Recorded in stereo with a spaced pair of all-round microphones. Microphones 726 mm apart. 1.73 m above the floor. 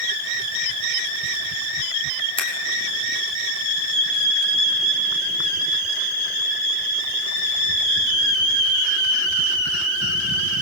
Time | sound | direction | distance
2.4 | scissors | 5° left (ahead or behind) | 5.5 m